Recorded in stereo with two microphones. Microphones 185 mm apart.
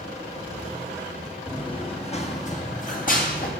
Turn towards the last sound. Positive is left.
turn(degrees=50)  # may be behind; listen again after turning